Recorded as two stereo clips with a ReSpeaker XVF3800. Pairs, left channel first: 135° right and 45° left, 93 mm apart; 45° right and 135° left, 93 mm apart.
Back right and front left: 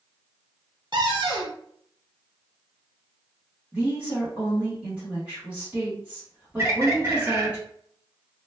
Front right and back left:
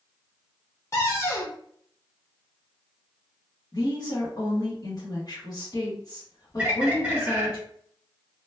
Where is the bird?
75° left, 1.1 m.